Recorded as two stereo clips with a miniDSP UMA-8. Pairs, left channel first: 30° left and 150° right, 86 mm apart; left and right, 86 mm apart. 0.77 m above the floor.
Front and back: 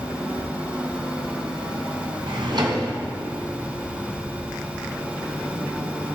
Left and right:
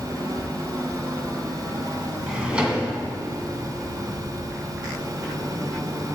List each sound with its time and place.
2.3 s a drawer: 165° right, 1.5 m